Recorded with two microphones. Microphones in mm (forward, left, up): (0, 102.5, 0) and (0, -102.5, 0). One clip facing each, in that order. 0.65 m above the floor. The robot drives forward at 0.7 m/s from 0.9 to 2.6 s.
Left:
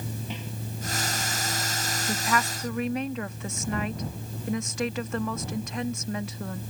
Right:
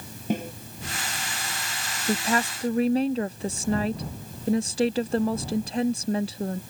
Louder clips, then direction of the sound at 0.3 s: Right 10 dB; 50° right (ahead or behind).